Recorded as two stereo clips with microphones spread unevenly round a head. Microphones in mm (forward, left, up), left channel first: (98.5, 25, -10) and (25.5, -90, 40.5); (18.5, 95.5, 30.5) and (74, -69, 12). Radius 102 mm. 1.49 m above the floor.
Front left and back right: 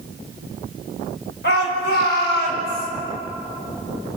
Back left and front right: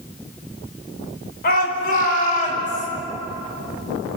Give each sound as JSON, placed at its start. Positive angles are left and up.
{"t": 1.4, "sound": "a shout", "azimuth_deg": 80, "distance_m": 5.5}